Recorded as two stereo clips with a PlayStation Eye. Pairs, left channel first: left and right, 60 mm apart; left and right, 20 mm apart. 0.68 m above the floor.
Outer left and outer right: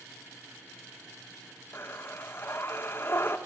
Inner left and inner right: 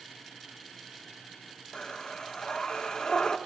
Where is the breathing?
40° left (ahead or behind), 1.7 m.